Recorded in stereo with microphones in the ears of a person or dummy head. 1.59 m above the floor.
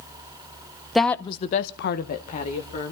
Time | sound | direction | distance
0.9 | a woman speaking | 10° left (ahead or behind) | 0.9 m